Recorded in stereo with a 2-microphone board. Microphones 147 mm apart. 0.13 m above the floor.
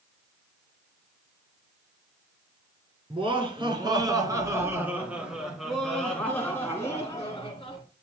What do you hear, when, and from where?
3.1 s laughter: 40° right (ahead or behind), 2 m; by 7.8 s 30° left (ahead or behind), 2 m